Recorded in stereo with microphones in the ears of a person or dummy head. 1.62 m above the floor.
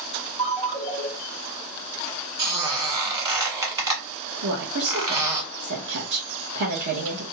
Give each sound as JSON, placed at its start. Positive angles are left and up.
{"t": 0.4, "sound": "a ringtone", "side_deg": -35, "distance_m": 1.4}
{"t": 2.4, "sound": "a squeak", "side_deg": -25, "distance_m": 1.3}
{"t": 4.4, "sound": "a woman speaking", "side_deg": -70, "distance_m": 0.9}